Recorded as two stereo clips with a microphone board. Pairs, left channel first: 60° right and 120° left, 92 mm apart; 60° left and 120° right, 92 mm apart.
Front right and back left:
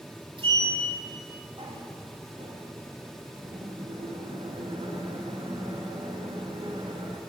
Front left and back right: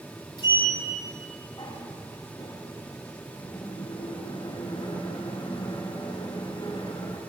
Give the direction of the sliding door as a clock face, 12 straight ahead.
9 o'clock.